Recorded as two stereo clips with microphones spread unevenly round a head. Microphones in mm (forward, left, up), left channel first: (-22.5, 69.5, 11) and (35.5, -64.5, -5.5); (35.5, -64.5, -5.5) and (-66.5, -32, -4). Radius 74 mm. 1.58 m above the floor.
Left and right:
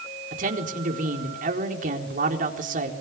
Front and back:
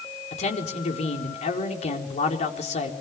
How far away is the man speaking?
About 4 m.